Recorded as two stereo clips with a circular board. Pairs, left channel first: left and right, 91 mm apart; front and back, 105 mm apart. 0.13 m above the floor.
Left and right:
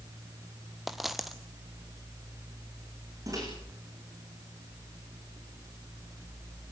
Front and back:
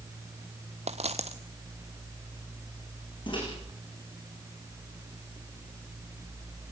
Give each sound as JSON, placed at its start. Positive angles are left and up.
{"t": 0.9, "sound": "a dropped coin", "azimuth_deg": 180, "distance_m": 1.2}
{"t": 3.3, "sound": "a microwave", "azimuth_deg": -40, "distance_m": 7.5}